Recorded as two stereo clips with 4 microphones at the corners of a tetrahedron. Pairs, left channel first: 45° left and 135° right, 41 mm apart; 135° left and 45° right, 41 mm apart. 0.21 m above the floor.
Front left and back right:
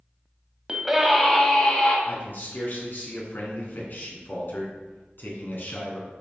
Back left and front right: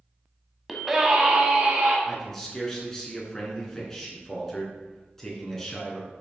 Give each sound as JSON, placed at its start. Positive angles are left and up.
{"t": 0.7, "sound": "a scream", "azimuth_deg": -125, "distance_m": 1.1}
{"t": 2.0, "sound": "a man speaking", "azimuth_deg": 55, "distance_m": 3.0}